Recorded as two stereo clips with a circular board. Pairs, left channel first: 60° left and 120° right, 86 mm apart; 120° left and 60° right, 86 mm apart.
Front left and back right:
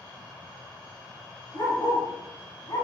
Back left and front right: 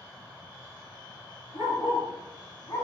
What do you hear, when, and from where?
1.5 s a dog barking: 90° left, 3 m; by 2.8 s 85° left, 2.5 m